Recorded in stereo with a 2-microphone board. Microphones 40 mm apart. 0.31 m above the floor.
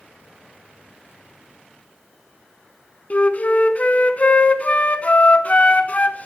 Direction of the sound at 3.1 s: 40° left (ahead or behind).